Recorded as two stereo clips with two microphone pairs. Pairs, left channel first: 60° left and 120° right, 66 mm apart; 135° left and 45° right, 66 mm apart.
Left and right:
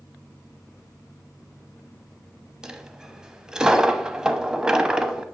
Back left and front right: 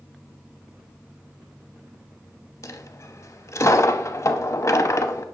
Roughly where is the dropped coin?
Behind.